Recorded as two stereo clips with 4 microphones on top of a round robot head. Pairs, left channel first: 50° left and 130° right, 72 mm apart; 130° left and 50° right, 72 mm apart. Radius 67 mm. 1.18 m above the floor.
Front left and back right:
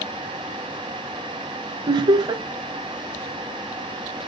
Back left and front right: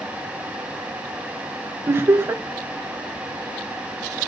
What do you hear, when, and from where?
1.9 s laughter: 110° right, 0.6 m